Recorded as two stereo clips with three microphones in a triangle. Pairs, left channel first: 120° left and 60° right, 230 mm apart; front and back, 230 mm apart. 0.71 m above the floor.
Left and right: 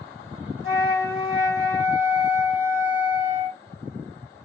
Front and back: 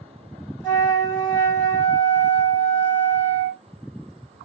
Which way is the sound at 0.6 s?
75° right.